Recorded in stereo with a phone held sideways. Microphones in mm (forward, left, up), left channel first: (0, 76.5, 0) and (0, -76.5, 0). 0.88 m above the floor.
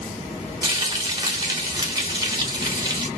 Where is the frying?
25° right (ahead or behind), 1.5 m.